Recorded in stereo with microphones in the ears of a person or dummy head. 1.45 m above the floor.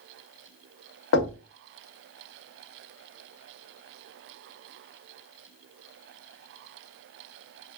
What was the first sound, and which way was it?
Knocking, 80° left.